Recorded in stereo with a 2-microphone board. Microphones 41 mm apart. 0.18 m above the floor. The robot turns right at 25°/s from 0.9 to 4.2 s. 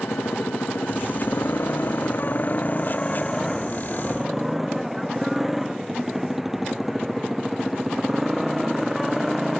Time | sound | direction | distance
0.0 | a motorcycle | 105° left | ?